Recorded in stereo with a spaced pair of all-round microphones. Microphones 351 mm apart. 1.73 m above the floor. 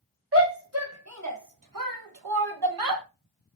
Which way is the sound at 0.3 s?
35° right (ahead or behind).